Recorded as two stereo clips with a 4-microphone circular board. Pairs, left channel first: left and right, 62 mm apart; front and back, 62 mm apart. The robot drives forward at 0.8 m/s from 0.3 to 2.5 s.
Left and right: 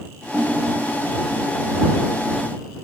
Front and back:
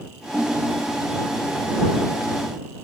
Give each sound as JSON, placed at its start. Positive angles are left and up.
{"t": 0.3, "sound": "a ringtone", "azimuth_deg": -135}